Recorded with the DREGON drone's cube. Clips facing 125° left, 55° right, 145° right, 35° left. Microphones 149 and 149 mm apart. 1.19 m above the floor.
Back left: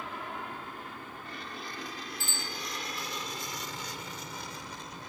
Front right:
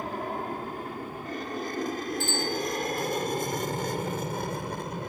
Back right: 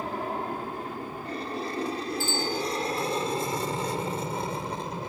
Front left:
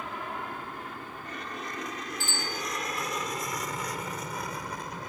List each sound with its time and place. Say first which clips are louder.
0.0 s an aircraft: front right 8 dB, back right 6 dB; 95° right; by 5.1 s 85° right
2.2 s a bicycle bell: front right 12 dB, back right 7 dB; 70° right